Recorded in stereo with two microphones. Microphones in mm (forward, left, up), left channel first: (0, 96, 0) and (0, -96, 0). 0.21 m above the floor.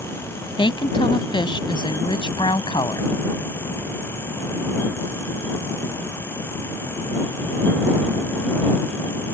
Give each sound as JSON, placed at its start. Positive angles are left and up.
{"t": 0.6, "sound": "a woman speaking", "side_deg": 25}